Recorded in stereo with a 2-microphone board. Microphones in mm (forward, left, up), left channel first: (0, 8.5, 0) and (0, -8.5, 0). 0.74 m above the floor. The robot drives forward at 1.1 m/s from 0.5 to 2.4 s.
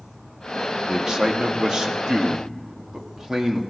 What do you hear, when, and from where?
0.9 s a man speaking: 35° right (ahead or behind), 1.6 m